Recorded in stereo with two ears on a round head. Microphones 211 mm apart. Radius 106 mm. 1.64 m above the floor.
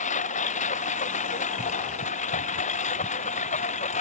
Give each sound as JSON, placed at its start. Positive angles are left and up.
{"t": 0.0, "sound": "a lawn mower", "side_deg": 30}